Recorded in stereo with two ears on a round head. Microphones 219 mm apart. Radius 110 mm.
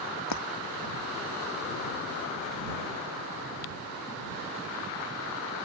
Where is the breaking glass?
80° left.